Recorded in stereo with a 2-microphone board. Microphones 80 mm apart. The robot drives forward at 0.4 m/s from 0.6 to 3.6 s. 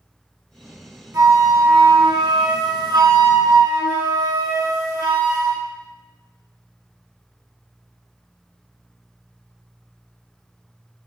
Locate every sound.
1.1 s a flute: 45° right (ahead or behind), 0.7 m